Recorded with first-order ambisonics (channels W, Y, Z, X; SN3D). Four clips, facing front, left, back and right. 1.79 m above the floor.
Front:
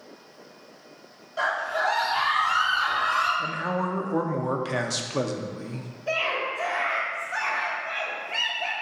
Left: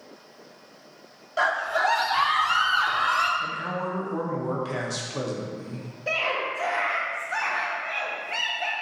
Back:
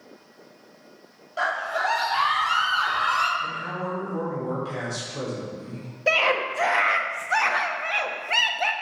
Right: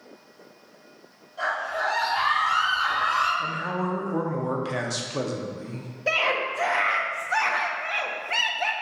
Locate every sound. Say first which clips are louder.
1.4 s a scream: left 4 dB, even; 105° left, 1.8 m; by 3.3 s 135° left, 3 m
3.4 s a man speaking: right 1 dB, front 2 dB; 15° right, 0.8 m
6.1 s a scream: right 3 dB, back 5 dB; 160° right, 0.8 m